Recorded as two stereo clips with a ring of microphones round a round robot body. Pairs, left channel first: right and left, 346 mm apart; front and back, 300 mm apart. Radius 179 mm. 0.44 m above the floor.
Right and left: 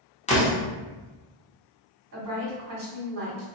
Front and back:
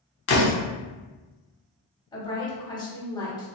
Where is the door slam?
25° right, 0.9 m.